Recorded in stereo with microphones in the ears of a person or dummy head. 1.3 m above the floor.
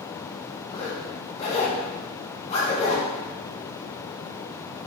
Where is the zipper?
35° left (ahead or behind), 1.2 m.